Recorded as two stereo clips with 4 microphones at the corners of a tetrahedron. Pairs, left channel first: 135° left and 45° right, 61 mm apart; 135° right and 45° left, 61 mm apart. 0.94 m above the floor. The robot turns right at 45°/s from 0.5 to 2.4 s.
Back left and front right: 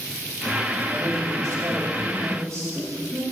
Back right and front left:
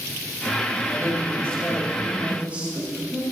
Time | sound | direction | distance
0.9 | a woman speaking | 90° right | 2.5 m